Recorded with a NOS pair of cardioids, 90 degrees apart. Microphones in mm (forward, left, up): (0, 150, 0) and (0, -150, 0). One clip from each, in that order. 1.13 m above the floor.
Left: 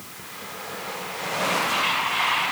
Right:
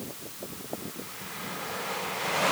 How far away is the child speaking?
I don't hear a child speaking.